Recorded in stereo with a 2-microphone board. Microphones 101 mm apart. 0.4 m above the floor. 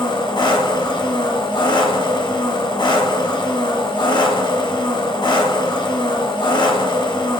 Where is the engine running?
50° left (ahead or behind), 1.5 m.